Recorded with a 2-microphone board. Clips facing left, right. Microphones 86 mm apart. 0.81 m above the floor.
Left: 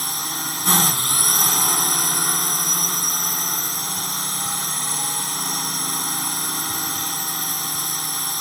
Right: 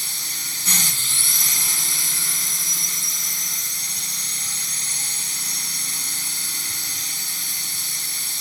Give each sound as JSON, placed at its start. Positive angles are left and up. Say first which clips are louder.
{"t": 0.0, "sound": "a drone", "louder": "left 8 dB", "side_deg": 50}